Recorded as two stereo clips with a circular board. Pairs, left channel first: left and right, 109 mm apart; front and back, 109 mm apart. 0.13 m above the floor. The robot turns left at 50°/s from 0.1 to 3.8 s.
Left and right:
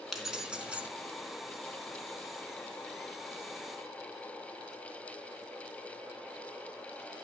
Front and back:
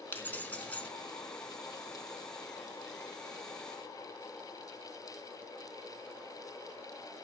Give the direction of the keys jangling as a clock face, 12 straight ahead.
12 o'clock.